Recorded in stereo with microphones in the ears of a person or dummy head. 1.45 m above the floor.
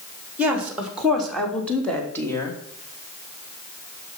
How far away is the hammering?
No hammering in this recording.